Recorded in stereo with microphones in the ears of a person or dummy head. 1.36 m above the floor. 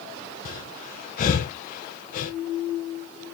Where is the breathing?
45° left (ahead or behind), 1.0 m.